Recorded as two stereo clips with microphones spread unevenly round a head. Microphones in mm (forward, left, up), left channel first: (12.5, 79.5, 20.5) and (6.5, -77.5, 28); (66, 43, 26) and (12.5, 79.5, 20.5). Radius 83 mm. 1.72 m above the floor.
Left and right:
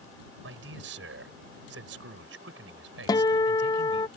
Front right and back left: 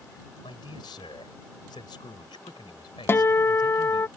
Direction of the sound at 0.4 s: 80° right.